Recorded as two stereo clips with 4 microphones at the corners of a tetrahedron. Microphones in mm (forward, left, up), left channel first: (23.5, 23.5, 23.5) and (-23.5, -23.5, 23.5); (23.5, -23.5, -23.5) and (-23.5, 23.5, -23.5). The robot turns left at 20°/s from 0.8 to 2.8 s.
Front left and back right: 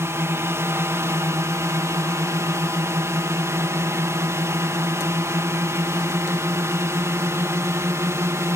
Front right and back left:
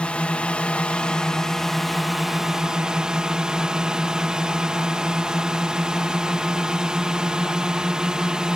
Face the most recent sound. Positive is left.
turn(degrees=-150)